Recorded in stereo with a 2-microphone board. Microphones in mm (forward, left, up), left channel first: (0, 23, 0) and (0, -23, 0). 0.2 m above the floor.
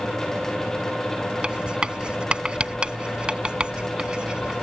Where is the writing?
20° right (ahead or behind).